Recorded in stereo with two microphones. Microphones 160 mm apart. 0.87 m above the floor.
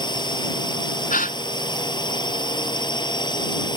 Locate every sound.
0.0 s a drone: 25° left (ahead or behind)
1.1 s a gasp: 60° left (ahead or behind)